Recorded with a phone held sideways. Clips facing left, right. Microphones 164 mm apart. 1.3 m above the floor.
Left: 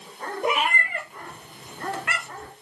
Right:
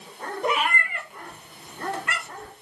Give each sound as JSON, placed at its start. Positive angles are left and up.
{"t": 0.4, "sound": "a cat meowing", "side_deg": 10, "distance_m": 0.7}